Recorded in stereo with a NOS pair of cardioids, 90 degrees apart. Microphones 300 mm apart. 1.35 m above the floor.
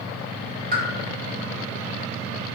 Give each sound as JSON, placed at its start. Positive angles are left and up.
{"t": 0.7, "sound": "a pop", "azimuth_deg": -30, "distance_m": 1.2}